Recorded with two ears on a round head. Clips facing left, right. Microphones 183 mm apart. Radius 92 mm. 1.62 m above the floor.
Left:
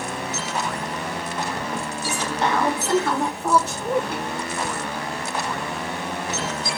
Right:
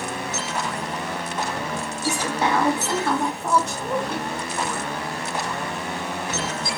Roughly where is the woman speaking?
Centre.